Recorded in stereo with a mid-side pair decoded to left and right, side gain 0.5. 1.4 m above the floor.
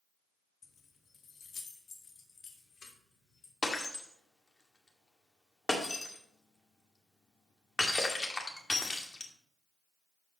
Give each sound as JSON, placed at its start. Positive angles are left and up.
{"t": 0.6, "sound": "keys jangling", "azimuth_deg": 45, "distance_m": 1.4}
{"t": 3.6, "sound": "breaking glass", "azimuth_deg": 20, "distance_m": 2.0}